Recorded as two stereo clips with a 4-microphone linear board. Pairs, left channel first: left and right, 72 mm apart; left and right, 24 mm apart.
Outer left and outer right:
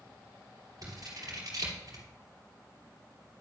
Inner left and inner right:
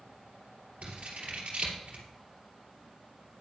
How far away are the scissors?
About 3 m.